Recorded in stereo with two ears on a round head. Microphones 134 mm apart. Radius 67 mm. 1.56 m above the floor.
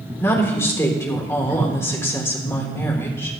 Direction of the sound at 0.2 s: 15° left (ahead or behind).